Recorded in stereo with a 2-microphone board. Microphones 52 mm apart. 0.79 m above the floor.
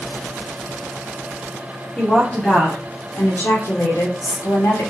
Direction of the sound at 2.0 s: 15° left (ahead or behind).